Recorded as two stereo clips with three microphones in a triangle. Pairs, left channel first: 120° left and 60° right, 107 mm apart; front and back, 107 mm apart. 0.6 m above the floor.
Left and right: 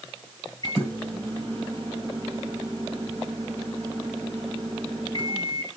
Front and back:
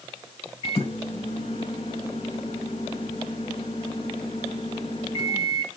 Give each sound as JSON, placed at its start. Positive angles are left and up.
{"t": 0.6, "sound": "a microwave", "azimuth_deg": -10, "distance_m": 2.5}